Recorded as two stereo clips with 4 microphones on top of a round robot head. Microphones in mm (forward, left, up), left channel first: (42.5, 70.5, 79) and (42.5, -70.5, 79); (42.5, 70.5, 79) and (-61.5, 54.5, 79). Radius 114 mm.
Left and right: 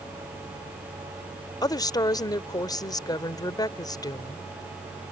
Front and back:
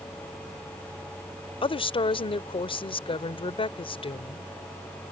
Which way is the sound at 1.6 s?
30° left.